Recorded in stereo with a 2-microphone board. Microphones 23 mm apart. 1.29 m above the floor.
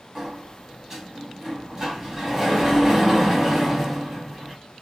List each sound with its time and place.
0.1 s a sliding door: 25° right (ahead or behind), 1.3 m